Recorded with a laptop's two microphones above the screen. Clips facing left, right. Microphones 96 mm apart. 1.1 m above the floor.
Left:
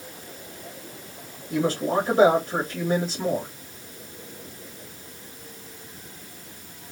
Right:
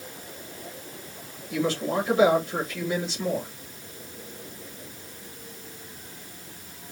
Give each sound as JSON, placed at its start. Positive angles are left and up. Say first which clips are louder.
{"t": 1.5, "sound": "a man speaking", "louder": "left 3 dB", "side_deg": 45, "distance_m": 2.5}